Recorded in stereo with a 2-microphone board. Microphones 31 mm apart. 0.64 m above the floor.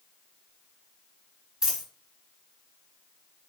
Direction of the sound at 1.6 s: 25° right (ahead or behind).